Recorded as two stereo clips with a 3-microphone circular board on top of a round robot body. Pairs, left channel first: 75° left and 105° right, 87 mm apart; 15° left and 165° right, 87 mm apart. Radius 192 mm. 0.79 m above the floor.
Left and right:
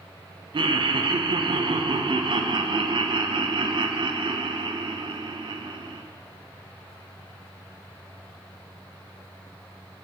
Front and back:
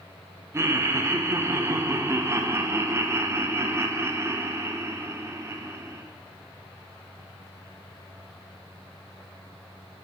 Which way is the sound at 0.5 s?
110° right.